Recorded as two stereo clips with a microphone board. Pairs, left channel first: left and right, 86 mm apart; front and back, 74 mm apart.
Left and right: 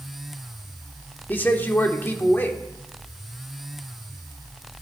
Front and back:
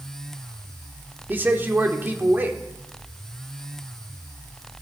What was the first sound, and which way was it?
A man speaking, 140° left.